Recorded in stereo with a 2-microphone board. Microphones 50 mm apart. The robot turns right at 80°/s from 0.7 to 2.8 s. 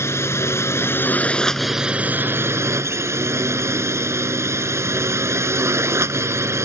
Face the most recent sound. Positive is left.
turn(degrees=-85)